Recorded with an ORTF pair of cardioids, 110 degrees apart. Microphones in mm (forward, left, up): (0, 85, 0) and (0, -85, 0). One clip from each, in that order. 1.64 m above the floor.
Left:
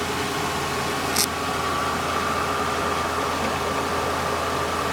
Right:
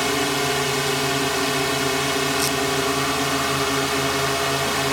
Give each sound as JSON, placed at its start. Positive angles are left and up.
{"t": 0.0, "sound": "a drone", "azimuth_deg": -70}